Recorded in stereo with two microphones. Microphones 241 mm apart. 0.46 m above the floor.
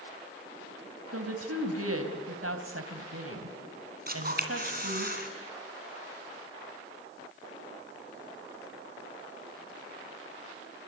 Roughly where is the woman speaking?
Right.